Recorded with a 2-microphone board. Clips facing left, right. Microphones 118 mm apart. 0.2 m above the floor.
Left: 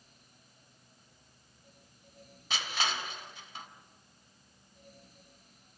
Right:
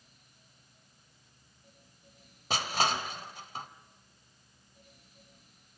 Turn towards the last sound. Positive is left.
turn(degrees=-40)  # may be behind; listen again after turning